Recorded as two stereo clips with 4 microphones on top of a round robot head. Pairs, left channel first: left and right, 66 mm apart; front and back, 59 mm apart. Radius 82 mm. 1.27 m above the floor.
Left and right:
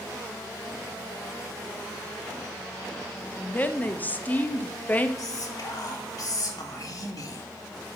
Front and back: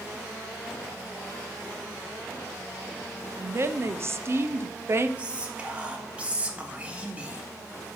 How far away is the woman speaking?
About 0.6 m.